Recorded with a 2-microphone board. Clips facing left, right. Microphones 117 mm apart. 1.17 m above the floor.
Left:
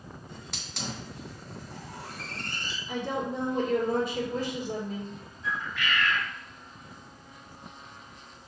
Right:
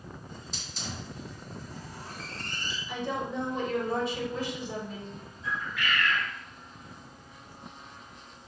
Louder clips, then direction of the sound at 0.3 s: Even; 70° left (ahead or behind).